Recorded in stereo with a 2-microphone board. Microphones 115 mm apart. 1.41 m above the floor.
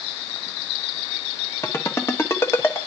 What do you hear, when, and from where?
1.6 s a ringtone: 25° left (ahead or behind), 1.0 m